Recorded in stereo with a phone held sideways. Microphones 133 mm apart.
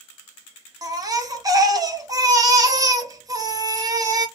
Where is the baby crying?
30° right (ahead or behind), 0.6 m.